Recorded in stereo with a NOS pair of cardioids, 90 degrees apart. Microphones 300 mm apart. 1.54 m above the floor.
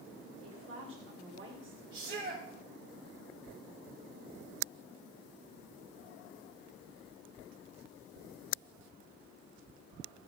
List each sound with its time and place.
0.4 s a woman speaking: 45° right, 5 m; by 1.8 s 40° right, 4.5 m
1.9 s a shout: 40° right, 4 m